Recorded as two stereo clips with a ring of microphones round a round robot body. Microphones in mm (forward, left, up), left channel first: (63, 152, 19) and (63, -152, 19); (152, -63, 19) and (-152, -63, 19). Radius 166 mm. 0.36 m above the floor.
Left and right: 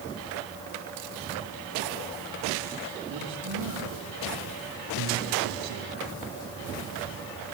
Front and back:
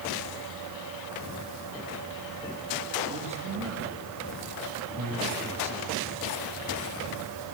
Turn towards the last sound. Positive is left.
turn(degrees=-130)